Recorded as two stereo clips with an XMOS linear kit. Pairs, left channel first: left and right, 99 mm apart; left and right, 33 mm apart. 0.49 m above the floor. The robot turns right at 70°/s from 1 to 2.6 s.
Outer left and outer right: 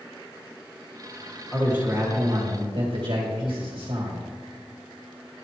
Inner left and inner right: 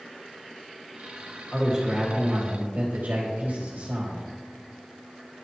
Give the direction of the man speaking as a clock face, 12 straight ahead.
6 o'clock.